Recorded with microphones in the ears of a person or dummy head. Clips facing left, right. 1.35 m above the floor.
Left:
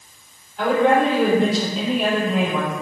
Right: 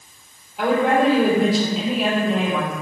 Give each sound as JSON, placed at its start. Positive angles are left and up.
{"t": 0.6, "sound": "a woman speaking", "side_deg": -5, "distance_m": 3.5}